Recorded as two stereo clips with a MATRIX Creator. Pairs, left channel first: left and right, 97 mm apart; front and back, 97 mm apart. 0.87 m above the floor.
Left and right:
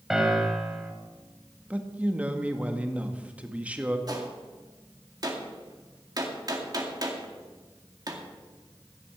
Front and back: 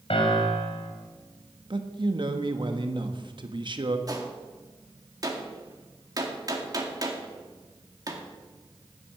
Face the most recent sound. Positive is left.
turn(degrees=-135)